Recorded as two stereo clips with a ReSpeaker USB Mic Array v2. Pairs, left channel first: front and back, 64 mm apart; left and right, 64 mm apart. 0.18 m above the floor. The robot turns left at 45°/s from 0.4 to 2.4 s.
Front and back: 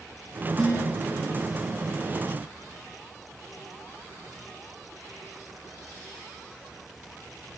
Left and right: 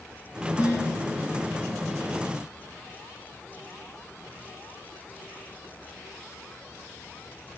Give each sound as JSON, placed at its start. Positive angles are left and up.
{"t": 0.6, "sound": "dishes clattering", "azimuth_deg": 80, "distance_m": 8.5}